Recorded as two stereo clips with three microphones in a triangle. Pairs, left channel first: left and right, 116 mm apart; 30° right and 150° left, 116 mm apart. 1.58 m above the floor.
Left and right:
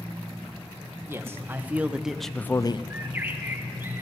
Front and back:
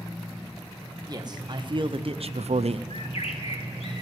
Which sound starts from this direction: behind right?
A man speaking, at 1.1 s.